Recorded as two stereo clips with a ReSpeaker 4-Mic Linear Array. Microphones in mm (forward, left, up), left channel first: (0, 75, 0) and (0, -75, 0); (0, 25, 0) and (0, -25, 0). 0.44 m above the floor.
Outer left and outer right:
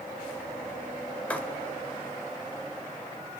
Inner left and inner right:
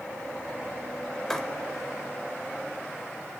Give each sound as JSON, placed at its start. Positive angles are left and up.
{"t": 1.3, "sound": "writing", "side_deg": 10, "distance_m": 1.4}